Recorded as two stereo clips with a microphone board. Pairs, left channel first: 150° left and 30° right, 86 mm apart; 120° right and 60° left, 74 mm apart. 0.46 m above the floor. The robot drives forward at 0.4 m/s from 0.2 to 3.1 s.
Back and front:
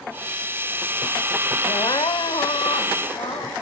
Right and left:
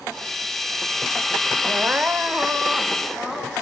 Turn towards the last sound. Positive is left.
turn(degrees=150)